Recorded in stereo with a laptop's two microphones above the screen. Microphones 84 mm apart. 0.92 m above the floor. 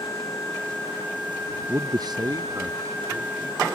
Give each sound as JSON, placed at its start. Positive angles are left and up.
{"t": 1.7, "sound": "a man speaking", "side_deg": -30}